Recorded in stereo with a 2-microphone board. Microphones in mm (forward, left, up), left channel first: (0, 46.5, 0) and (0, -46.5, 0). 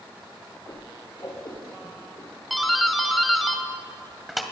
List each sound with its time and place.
0.7 s a whoosh: 40° left (ahead or behind), 8 m
2.5 s a doorbell: centre (ahead or behind), 2 m